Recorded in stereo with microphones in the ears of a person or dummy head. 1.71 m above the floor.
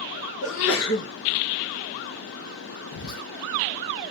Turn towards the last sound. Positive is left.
turn(degrees=85)